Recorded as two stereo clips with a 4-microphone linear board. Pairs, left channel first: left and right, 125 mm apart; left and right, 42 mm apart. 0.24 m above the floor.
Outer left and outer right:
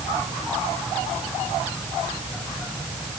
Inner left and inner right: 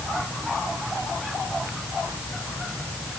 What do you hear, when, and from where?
Only background noise.